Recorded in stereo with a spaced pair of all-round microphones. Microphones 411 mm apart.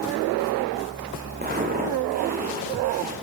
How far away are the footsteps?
About 3 m.